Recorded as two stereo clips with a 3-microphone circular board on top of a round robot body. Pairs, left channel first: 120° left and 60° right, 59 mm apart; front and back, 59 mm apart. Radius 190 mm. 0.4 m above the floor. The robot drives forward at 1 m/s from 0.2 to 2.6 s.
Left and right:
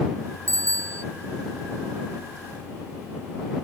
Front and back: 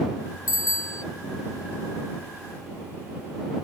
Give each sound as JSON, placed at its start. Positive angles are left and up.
{"t": 0.5, "sound": "a bicycle bell", "azimuth_deg": -25}